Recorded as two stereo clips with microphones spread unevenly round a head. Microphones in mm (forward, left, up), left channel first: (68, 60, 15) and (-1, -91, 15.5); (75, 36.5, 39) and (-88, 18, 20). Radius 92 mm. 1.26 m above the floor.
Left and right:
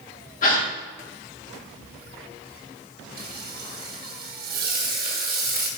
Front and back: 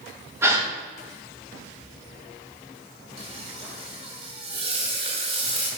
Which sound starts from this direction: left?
A gasp, at 0.4 s.